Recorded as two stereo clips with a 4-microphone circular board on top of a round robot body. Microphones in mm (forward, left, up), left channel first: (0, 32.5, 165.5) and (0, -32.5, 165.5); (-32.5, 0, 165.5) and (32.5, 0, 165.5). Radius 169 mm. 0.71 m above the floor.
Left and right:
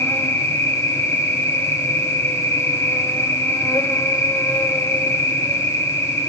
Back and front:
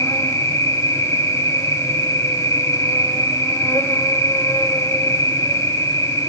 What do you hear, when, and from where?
0.0 s an insect: 135° left, 3 m